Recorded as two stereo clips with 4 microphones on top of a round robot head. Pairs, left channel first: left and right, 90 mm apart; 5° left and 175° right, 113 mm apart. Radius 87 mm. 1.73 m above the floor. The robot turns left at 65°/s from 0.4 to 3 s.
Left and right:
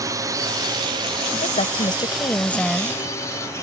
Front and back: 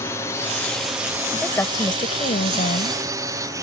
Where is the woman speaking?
85° left; by 3.0 s 15° right.